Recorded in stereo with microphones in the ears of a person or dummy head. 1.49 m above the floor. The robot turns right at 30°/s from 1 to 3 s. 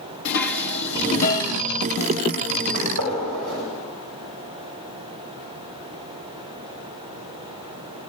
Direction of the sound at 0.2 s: 55° left (ahead or behind).